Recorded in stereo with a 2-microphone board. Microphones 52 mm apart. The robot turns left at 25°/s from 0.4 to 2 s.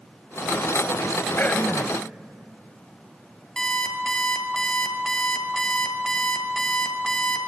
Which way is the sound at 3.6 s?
15° left (ahead or behind).